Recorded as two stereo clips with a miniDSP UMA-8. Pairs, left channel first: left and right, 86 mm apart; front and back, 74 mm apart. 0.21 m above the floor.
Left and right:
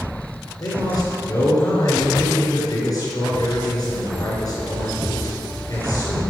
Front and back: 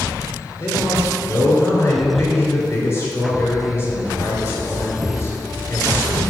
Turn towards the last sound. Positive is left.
turn(degrees=55)